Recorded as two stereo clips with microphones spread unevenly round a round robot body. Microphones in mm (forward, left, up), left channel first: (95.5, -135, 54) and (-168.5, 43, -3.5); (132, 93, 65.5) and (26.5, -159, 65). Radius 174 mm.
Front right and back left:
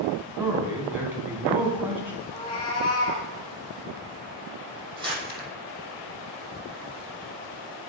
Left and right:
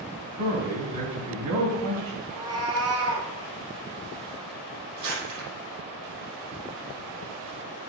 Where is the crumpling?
140° right, 6.5 m.